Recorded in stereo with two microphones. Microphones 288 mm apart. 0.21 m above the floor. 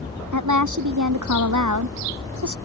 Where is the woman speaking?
80° right.